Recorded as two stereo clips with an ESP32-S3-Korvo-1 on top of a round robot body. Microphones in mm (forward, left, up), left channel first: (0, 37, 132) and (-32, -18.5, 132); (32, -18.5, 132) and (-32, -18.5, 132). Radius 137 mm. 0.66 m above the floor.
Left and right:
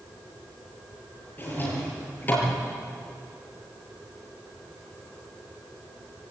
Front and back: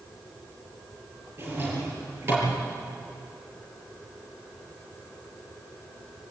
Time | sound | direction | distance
1.4 | a drawer | 125° left | 6 m